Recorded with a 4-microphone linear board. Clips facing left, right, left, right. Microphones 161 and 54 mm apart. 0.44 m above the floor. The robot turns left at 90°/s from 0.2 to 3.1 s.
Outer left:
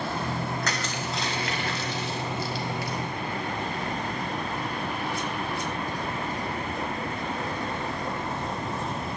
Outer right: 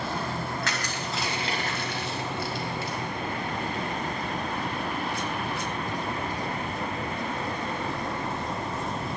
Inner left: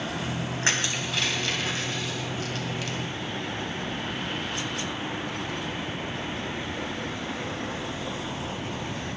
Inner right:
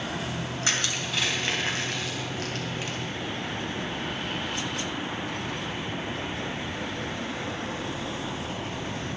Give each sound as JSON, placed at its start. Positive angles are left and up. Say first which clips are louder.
{"t": 0.6, "sound": "crushing", "louder": "outer left 1 dB, inner left 2 dB", "side_deg": 40, "distance_m": 3.5}